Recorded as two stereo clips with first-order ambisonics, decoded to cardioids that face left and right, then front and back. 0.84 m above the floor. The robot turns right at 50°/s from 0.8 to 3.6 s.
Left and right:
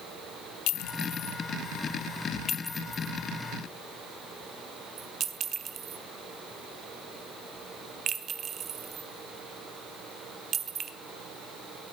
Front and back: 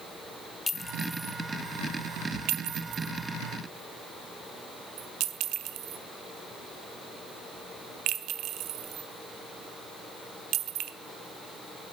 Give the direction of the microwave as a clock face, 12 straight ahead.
No microwave in this recording.